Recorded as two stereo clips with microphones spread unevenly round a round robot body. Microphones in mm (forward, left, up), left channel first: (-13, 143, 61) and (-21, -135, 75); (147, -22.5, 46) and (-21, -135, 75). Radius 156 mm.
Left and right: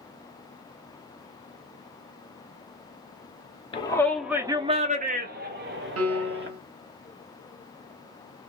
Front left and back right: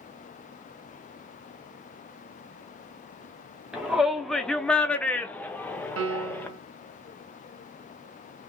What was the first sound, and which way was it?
A shout, 110° left.